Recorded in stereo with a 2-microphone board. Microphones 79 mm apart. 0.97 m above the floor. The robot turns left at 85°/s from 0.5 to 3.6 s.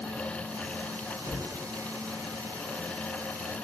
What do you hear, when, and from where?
1.2 s a cupboard door: 70° right (ahead or behind), 1.5 m; by 1.5 s 55° right (ahead or behind), 1.5 m